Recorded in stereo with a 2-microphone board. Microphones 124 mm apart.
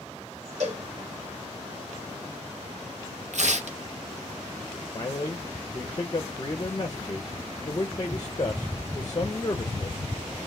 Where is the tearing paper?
70° right (ahead or behind), 1.0 m.